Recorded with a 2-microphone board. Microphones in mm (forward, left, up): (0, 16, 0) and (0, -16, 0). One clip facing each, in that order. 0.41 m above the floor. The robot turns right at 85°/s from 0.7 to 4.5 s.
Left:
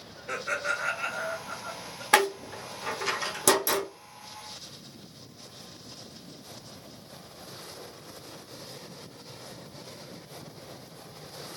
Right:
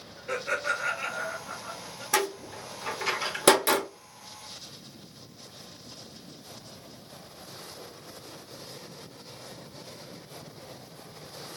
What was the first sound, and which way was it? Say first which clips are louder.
Laughter: right 1 dB; 165° right.